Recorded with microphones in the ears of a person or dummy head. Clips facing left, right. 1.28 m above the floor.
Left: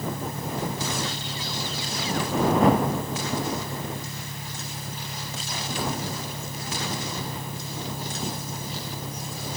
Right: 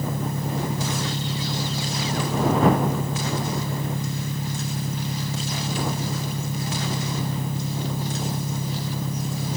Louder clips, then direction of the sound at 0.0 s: Right 3 dB; 85° right.